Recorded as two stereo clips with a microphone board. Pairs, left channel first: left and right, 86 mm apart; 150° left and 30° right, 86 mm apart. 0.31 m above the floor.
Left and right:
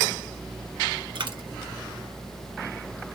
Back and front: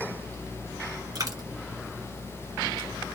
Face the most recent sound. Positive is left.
turn(degrees=-70)